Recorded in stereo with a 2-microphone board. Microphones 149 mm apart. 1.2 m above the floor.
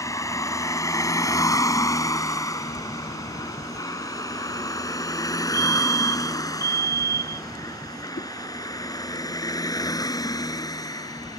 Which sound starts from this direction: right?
A fire alarm, at 5.5 s.